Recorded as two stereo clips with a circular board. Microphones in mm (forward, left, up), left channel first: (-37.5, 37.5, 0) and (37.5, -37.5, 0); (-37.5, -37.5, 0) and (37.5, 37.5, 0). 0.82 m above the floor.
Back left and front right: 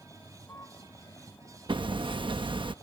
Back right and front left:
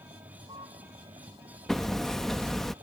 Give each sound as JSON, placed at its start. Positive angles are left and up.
{"t": 0.0, "sound": "a vehicle", "azimuth_deg": 70}
{"t": 1.7, "sound": "hammering", "azimuth_deg": -50}